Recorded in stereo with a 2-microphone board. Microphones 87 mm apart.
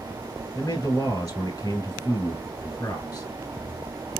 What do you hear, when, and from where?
0.6 s a man speaking: 30° left (ahead or behind), 1.3 m